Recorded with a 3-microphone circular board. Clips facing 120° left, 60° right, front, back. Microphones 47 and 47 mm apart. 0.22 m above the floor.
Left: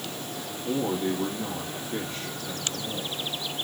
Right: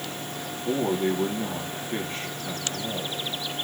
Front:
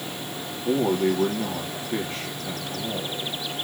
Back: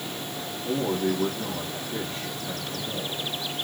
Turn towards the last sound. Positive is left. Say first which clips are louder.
# right 2 dB, front 4 dB
turn(degrees=-20)